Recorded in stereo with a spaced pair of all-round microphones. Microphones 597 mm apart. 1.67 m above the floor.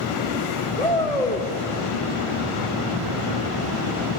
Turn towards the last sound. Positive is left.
turn(degrees=10)  # may be behind; listen again after turning